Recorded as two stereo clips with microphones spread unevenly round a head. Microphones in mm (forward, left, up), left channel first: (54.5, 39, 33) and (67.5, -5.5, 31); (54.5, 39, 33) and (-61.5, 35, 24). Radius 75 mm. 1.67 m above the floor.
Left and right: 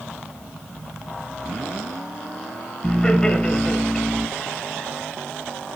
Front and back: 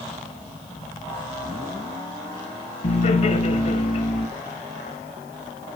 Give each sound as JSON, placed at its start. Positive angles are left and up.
{"t": 2.8, "sound": "laughter", "azimuth_deg": 25, "distance_m": 1.6}